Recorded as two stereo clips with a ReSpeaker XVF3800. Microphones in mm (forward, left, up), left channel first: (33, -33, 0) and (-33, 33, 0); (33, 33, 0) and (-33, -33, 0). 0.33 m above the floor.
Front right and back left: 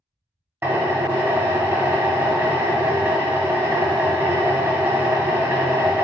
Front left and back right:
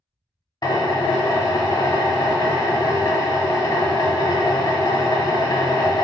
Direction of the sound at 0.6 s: 75° left.